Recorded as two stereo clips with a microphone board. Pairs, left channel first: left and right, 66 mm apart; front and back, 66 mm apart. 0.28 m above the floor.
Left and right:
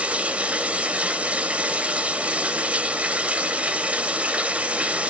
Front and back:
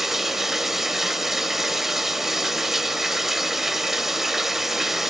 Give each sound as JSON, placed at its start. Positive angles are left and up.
{"t": 0.0, "sound": "running water", "azimuth_deg": -100, "distance_m": 0.9}